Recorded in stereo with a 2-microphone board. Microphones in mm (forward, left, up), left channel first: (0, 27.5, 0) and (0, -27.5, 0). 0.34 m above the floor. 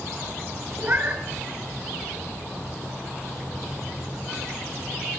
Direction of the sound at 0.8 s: 35° right (ahead or behind).